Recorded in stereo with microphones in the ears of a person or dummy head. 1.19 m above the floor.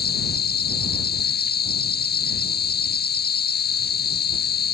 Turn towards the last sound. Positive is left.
turn(degrees=60)  # may be behind; listen again after turning